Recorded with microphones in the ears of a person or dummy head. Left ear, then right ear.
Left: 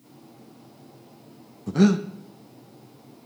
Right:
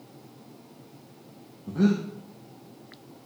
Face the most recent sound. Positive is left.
turn(degrees=75)  # may be behind; listen again after turning